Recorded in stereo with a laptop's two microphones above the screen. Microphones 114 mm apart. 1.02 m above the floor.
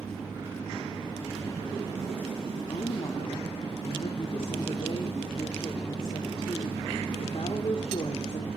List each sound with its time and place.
2.7 s a woman speaking: 50° left (ahead or behind), 2.5 m